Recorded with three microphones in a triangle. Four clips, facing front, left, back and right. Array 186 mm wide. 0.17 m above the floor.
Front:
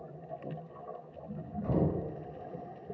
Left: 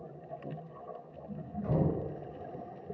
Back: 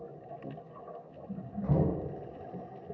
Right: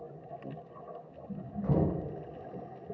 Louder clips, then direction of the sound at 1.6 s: Right 1 dB, back 1 dB; 115° right.